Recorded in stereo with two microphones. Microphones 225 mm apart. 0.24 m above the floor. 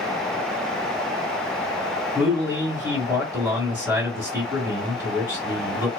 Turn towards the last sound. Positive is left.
turn(degrees=-15)  # may be behind; listen again after turning